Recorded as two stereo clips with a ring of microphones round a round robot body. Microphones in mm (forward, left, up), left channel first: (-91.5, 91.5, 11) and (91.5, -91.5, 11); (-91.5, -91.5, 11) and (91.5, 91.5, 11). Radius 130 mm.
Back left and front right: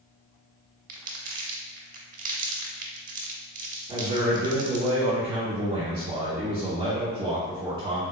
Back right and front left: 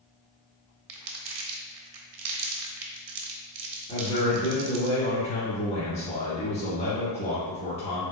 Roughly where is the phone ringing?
No phone ringing in this recording.